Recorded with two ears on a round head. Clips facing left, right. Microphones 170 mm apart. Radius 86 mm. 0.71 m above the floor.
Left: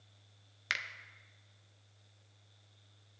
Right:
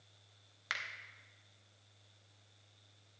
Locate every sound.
0.7 s a finger snap: 25° left (ahead or behind), 0.5 m